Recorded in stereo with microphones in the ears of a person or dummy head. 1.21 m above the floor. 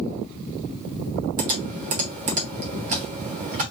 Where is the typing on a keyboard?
45° right (ahead or behind), 1.1 m.